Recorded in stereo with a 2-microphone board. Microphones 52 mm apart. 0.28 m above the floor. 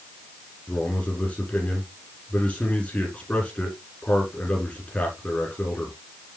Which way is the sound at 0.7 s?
25° left (ahead or behind).